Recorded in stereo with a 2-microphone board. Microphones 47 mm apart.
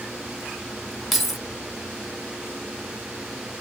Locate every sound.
1.1 s keys jangling: 5° right (ahead or behind), 0.6 m